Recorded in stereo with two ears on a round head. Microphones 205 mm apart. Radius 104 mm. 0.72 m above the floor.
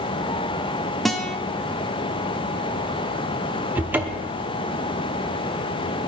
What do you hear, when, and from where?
1.1 s a guitar: centre (ahead or behind), 1.0 m
3.8 s a cupboard door: 5° right (ahead or behind), 0.8 m